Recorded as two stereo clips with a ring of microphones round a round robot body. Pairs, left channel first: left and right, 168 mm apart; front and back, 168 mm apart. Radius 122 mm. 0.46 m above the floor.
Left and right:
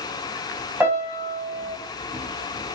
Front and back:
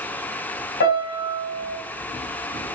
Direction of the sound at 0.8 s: 10° right.